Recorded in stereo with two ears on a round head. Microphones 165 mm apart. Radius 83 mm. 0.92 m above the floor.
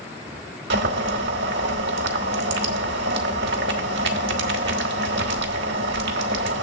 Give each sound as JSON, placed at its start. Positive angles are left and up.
{"t": 0.7, "sound": "boiling", "side_deg": -65, "distance_m": 1.2}